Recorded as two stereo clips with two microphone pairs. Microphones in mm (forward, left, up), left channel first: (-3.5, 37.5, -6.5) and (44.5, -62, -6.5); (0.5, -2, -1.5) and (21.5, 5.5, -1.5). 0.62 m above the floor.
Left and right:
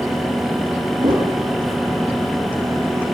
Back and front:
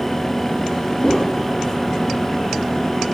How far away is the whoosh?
About 6 m.